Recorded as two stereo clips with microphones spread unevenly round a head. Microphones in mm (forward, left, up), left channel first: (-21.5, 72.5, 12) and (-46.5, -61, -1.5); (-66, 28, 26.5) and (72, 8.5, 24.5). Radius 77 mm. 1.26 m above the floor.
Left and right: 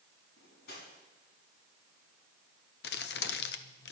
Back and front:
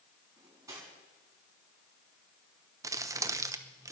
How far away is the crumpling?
About 0.9 m.